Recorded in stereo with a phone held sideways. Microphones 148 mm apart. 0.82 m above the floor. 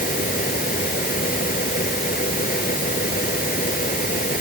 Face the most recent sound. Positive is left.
turn(degrees=75)  # may be behind; listen again after turning